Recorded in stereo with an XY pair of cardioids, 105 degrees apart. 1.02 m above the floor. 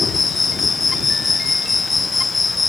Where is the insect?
25° left.